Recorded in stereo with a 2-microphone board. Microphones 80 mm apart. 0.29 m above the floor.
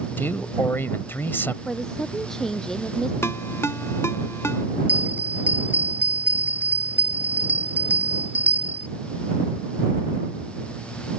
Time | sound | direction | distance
0.2 | a man speaking | 30° left (ahead or behind) | ?
1.6 | a woman speaking | 5° left (ahead or behind) | ?
3.2 | a ringtone | 35° left (ahead or behind) | ?
4.9 | a bell | 20° right (ahead or behind) | ?